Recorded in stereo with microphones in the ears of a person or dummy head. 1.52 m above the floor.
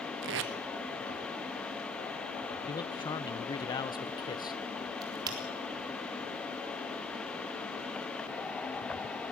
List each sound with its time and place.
0.2 s tape being pulled: 55° right (ahead or behind), 1.1 m
2.7 s a man speaking: 25° left (ahead or behind), 0.8 m
5.0 s a crack: 25° right (ahead or behind), 3.5 m